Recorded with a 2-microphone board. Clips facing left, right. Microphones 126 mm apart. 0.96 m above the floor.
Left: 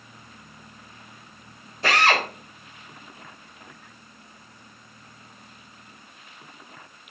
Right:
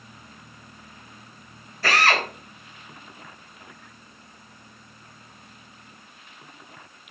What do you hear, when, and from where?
1.8 s a drill: 20° left (ahead or behind), 3.5 m